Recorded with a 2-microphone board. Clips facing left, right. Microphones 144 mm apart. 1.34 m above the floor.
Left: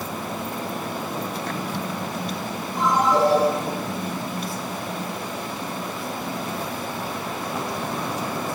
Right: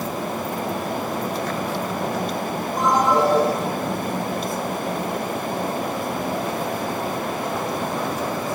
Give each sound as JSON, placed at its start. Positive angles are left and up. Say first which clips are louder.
{"t": 2.8, "sound": "a ringtone", "louder": "right 1 dB", "side_deg": -40, "distance_m": 5.5}